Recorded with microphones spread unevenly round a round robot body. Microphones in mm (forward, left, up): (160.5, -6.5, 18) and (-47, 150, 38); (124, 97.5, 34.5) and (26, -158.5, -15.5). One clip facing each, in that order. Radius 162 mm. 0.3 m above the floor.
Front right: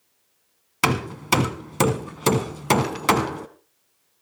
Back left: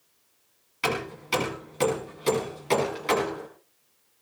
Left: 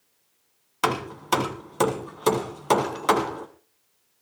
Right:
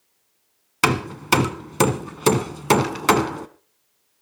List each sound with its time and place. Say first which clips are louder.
0.8 s hammering: front right 5 dB, right 5 dB; 65° right, 1.5 m